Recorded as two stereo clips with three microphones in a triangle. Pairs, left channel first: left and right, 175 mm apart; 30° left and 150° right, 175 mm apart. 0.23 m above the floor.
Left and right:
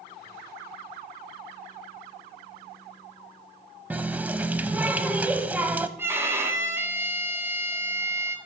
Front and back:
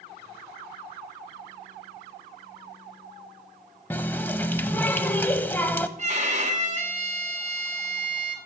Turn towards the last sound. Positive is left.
turn(degrees=-160)